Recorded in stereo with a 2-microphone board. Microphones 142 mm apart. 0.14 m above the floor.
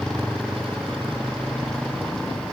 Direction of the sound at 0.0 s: 5° left (ahead or behind).